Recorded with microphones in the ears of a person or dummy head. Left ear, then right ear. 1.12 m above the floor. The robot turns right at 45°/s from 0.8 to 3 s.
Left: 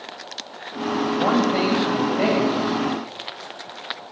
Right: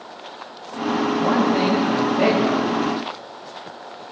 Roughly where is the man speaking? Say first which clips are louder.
Even; behind left.